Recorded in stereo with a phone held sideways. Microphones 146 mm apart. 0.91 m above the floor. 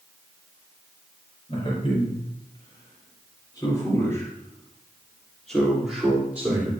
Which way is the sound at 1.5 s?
40° left (ahead or behind).